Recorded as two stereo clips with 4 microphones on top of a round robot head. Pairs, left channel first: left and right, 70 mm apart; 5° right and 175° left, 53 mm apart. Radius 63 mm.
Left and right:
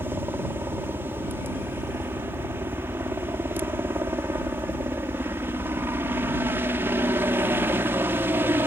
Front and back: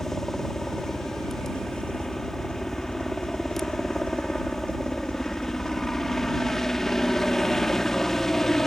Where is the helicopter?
85° right.